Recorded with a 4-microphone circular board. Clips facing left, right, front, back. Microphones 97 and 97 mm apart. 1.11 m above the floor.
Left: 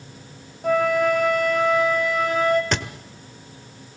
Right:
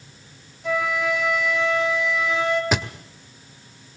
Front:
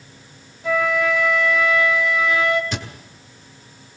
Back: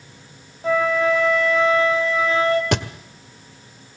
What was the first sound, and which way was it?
A flute, 130° left.